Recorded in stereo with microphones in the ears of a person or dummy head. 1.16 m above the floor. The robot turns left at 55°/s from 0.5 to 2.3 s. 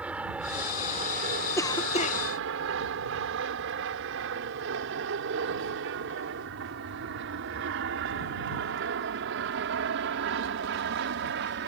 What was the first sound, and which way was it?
An aircraft, 5° right (ahead or behind).